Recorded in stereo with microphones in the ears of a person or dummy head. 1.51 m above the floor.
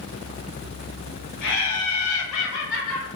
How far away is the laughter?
About 0.8 m.